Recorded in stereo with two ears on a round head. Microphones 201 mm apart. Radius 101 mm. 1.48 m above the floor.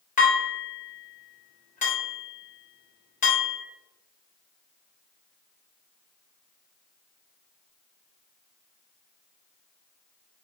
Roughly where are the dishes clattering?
Left.